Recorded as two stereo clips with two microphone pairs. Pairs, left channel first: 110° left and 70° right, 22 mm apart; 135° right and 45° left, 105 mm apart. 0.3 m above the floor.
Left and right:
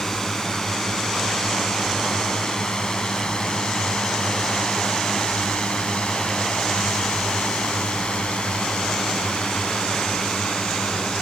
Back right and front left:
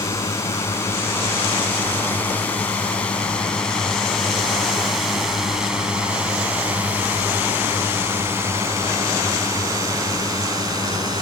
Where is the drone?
170° left; by 11.2 s 95° left.